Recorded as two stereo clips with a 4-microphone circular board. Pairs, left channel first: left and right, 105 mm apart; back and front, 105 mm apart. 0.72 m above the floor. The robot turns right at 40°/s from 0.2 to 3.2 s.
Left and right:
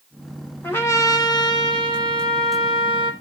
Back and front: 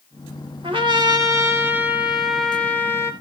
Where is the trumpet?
20° left, 2.0 m; by 3.1 s 120° left, 2.0 m.